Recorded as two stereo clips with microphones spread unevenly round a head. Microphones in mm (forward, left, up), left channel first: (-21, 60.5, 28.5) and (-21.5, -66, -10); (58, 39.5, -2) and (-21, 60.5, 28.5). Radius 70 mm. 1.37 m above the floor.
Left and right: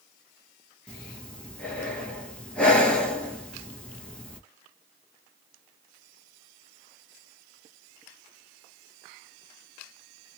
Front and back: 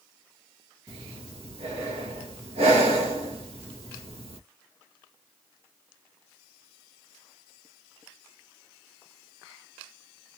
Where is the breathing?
170° left, 1.5 m.